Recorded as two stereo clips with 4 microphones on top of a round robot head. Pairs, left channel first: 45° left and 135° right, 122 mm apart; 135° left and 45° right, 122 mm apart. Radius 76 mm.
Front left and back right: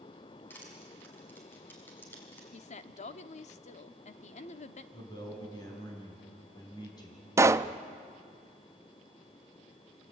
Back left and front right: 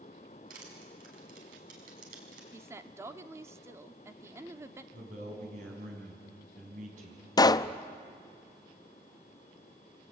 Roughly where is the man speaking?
Ahead.